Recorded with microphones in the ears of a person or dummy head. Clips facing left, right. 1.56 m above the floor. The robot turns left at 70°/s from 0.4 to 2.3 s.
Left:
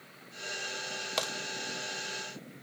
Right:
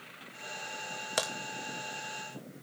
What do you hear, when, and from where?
1.2 s a crack: 10° right (ahead or behind), 0.9 m; by 1.3 s centre (ahead or behind), 0.9 m